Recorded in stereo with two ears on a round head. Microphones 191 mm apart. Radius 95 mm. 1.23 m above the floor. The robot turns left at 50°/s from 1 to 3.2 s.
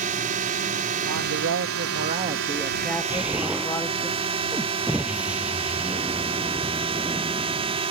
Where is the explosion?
10° right (ahead or behind); by 7.8 s 5° right (ahead or behind).